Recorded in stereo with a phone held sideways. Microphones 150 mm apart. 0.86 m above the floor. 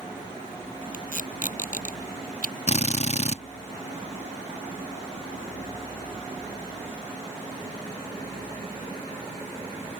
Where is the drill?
50° left (ahead or behind).